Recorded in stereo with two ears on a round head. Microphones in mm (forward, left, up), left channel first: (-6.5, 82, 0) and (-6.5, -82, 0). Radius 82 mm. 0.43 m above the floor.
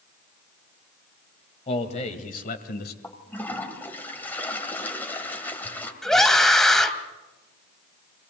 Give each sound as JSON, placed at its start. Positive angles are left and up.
{"t": 1.7, "sound": "a man speaking", "side_deg": 35, "distance_m": 2.0}
{"t": 3.0, "sound": "a toilet flushing", "side_deg": 10, "distance_m": 2.0}
{"t": 6.0, "sound": "a scream", "side_deg": 0, "distance_m": 2.5}